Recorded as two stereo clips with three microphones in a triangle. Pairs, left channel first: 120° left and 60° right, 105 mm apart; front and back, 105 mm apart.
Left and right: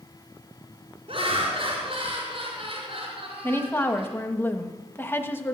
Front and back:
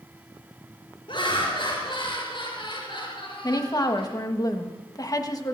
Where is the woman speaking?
50° left, 1.3 m.